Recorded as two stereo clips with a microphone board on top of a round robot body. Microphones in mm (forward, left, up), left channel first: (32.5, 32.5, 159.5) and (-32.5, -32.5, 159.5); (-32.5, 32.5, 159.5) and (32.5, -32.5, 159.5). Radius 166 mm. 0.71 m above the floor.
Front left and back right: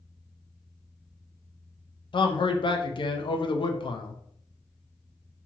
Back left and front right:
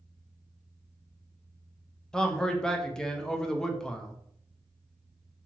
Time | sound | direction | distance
2.1 | a man speaking | 55° left | 0.6 m